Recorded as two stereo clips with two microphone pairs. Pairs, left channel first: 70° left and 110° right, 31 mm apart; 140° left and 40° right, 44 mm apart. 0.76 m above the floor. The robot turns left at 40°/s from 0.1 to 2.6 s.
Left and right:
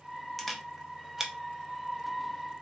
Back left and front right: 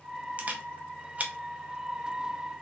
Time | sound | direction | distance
0.4 | a camera shutter | 15° right | 0.5 m